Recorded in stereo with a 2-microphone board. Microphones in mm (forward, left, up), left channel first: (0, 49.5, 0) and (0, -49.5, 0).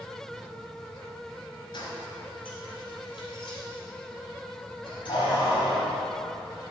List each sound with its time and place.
1.7 s keys jangling: 50° left (ahead or behind), 1.7 m; by 6.0 s 60° left (ahead or behind), 3.5 m